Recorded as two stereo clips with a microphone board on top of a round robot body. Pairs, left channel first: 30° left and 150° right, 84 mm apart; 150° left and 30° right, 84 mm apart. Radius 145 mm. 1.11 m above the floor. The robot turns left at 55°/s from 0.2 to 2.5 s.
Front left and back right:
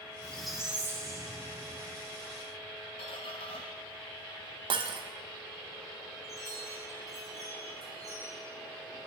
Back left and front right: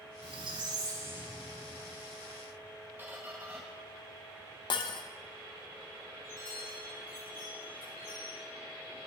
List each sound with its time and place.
0.2 s a squeak: 45° right, 0.8 m; by 2.1 s 150° right, 0.8 m
3.0 s a squeak: 35° left, 0.5 m
4.7 s breaking glass: 175° right, 0.6 m
6.2 s a chime: 120° left, 6 m